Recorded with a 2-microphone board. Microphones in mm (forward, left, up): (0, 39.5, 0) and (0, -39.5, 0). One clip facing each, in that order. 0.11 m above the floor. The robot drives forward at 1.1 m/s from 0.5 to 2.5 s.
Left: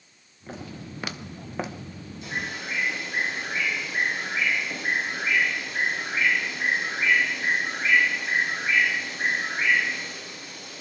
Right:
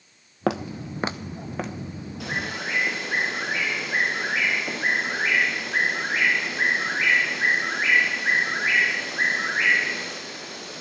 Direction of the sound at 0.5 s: 90° right.